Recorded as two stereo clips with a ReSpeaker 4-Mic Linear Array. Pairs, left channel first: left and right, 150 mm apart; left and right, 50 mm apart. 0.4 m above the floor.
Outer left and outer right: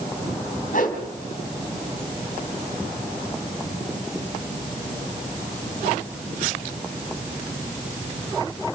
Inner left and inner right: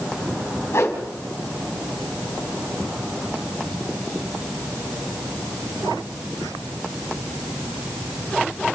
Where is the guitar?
No guitar in this recording.